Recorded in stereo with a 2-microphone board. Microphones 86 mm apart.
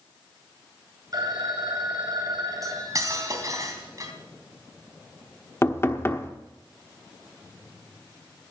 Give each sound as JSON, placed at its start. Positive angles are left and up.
{"t": 1.1, "sound": "a phone ringing", "side_deg": -50, "distance_m": 2.0}
{"t": 2.6, "sound": "cutlery clinking", "side_deg": -40, "distance_m": 2.5}
{"t": 5.6, "sound": "knocking", "side_deg": 30, "distance_m": 1.1}